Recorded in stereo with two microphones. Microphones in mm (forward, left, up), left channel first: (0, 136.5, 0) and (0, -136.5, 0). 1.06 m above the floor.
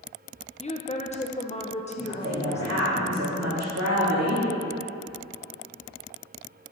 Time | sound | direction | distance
0.6 | a woman speaking | 25° left (ahead or behind) | 0.5 m
2.0 | a woman speaking | 70° right (ahead or behind) | 2 m